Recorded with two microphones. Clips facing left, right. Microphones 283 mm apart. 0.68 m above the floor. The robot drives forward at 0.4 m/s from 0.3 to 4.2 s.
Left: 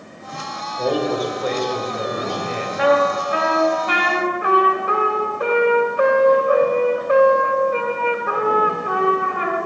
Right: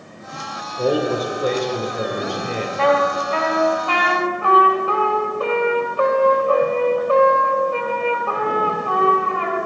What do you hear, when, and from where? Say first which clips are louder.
0.8 s a man speaking: right 1 dB; 30° right (ahead or behind), 2 m; by 2.7 s 40° right (ahead or behind), 1.5 m
2.8 s a trumpet: left 2 dB; 15° left (ahead or behind), 2.5 m; by 9.6 s 20° left (ahead or behind), 1.9 m